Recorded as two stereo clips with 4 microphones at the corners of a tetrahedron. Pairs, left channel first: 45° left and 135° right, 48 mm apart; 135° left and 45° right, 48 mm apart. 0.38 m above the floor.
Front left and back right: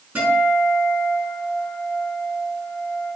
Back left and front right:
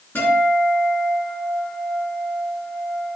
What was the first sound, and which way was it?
A guitar, 165° left.